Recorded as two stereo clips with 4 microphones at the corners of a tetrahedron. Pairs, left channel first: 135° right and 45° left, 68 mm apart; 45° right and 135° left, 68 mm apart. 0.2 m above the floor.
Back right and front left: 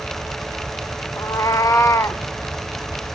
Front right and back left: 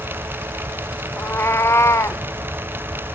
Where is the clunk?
No clunk in this recording.